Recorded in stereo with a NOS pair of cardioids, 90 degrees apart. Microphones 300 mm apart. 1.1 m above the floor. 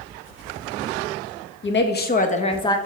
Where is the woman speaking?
45° left, 1.4 m; by 2.8 s 15° left, 1.1 m.